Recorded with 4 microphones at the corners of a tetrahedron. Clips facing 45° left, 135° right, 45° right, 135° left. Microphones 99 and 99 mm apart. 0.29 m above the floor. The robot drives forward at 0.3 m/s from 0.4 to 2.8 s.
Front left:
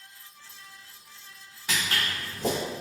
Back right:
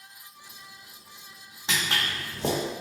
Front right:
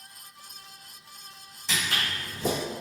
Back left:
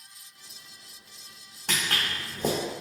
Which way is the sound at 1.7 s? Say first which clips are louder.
Back right 1 dB, even; 160° left.